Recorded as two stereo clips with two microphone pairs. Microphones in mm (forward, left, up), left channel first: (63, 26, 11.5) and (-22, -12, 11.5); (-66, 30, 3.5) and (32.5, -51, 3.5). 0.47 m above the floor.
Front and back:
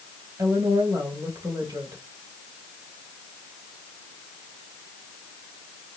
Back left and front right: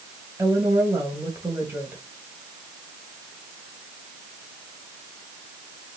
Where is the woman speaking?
105° right, 2.5 m.